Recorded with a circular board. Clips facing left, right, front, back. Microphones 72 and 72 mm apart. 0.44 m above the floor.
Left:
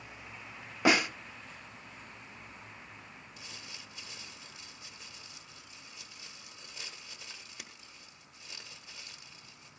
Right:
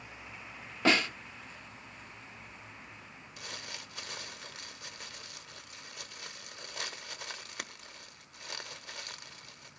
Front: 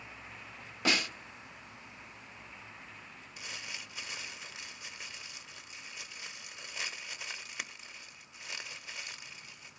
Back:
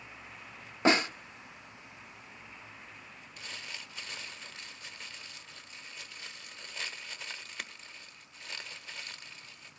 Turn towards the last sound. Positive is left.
turn(degrees=-80)